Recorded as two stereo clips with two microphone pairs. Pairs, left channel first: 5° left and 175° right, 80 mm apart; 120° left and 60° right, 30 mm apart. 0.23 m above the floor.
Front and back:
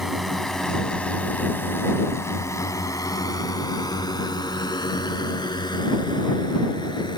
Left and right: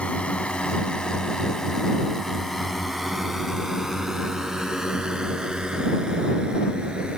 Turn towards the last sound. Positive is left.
turn(degrees=-5)